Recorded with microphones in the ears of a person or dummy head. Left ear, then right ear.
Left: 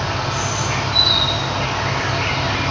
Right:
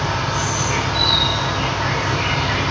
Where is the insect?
75° left (ahead or behind), 0.9 m.